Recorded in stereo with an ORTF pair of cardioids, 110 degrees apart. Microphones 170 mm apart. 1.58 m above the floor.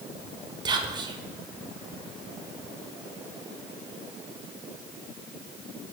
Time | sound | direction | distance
0.7 | whispering | 25° right | 0.7 m